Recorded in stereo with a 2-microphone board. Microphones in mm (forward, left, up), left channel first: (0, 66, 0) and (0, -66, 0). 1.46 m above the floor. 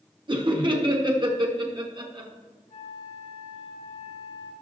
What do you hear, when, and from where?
0.3 s laughter: 35° right (ahead or behind), 1.6 m
2.7 s a flute: 65° left (ahead or behind), 3.5 m